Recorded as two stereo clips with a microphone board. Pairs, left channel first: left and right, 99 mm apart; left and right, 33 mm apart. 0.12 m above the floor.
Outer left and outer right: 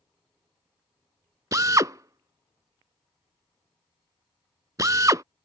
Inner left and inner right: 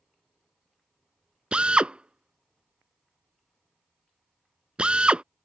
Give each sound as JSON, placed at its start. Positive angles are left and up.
{"t": 1.5, "sound": "a drill", "side_deg": -35}